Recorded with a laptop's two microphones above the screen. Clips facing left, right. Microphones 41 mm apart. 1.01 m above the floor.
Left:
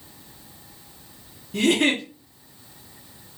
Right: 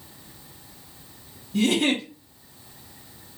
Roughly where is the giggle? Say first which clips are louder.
Left 2 dB; left.